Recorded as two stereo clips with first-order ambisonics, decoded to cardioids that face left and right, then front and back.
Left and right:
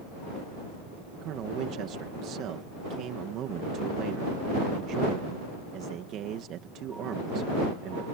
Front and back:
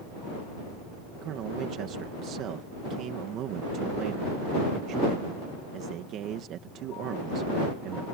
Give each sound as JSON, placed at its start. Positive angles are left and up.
{"t": 1.2, "sound": "a man speaking", "azimuth_deg": -135}